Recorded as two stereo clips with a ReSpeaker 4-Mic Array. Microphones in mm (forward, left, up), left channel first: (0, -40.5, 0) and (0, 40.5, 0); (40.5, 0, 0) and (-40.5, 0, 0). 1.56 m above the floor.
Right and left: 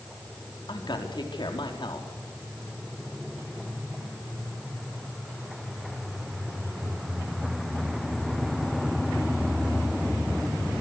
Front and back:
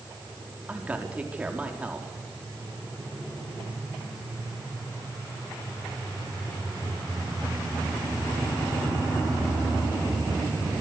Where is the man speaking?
110° right, 4.5 m.